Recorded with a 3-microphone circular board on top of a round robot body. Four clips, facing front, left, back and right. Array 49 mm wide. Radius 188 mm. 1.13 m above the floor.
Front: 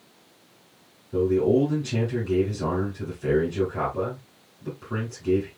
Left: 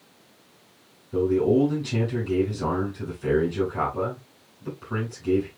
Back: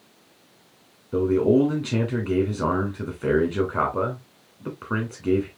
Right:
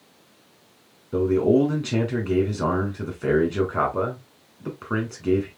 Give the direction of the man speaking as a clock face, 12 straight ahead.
4 o'clock.